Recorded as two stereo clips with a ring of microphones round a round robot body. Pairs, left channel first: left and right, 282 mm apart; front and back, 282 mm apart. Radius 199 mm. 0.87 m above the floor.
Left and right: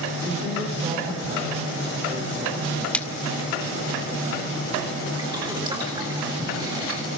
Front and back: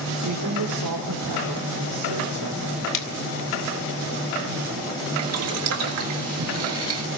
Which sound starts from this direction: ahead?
A splash, at 2.9 s.